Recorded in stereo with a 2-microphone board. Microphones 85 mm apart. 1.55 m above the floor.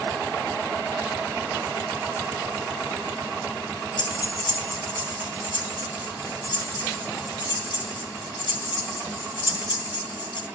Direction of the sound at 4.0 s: 65° left (ahead or behind).